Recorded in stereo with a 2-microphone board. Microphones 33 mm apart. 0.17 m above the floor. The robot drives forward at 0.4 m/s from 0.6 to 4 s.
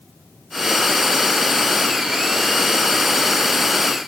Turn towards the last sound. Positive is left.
No sound to turn to.